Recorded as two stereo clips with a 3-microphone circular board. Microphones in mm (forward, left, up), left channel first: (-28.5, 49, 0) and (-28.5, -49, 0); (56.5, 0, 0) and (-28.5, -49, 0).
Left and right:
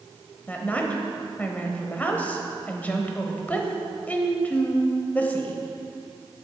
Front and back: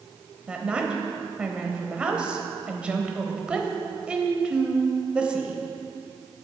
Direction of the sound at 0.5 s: 145° left.